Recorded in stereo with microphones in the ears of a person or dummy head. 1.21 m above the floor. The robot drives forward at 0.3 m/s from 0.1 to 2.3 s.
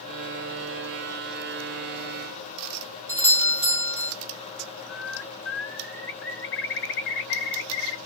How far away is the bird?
About 0.6 m.